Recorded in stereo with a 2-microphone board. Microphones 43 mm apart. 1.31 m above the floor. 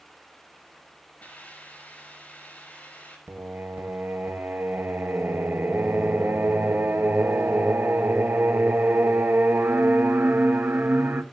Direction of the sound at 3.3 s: 55° right (ahead or behind).